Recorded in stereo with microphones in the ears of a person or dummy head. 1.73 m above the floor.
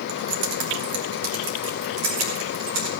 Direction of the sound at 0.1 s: 60° right (ahead or behind).